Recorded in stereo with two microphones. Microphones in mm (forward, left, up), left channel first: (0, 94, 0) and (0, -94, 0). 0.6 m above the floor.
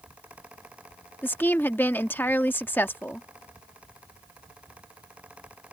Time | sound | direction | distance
1.2 | a woman speaking | 10° left (ahead or behind) | ?